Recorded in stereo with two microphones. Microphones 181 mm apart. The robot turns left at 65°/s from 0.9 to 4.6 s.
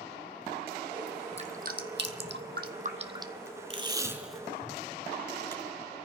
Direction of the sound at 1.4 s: 35° right (ahead or behind).